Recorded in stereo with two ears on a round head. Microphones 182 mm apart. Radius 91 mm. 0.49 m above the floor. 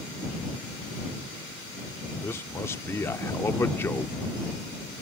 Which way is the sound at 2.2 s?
15° left (ahead or behind).